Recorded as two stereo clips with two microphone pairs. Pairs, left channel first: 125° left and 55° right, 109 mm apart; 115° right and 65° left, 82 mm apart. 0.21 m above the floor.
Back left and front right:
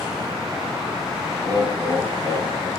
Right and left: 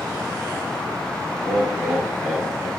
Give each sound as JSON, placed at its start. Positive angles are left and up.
{"t": 1.4, "sound": "laughter", "azimuth_deg": -20, "distance_m": 4.0}